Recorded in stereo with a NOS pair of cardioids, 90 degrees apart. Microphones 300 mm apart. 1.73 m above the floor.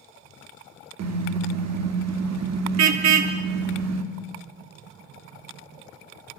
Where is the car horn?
65° right, 3 m.